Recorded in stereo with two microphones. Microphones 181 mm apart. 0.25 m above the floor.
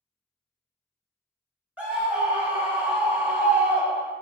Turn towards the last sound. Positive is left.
turn(degrees=-5)  # may be behind; listen again after turning